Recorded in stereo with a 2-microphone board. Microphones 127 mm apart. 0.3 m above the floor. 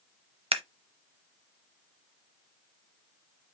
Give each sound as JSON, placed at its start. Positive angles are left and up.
{"t": 0.5, "sound": "scissors", "side_deg": -45, "distance_m": 0.7}